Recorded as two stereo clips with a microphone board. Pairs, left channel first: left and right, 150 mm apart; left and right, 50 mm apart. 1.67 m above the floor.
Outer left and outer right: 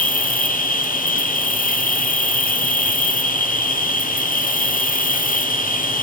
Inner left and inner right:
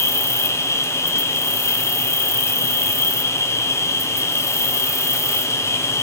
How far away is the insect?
About 1.2 m.